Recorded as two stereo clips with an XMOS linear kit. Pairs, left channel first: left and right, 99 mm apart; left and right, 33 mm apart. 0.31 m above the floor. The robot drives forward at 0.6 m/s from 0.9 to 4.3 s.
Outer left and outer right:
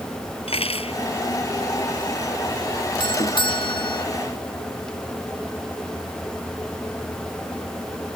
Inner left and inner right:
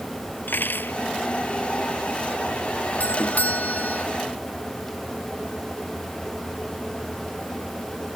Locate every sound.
0.5 s cutlery clinking: 80° left
3.0 s a doorbell: 55° left (ahead or behind); by 4.0 s 60° left (ahead or behind)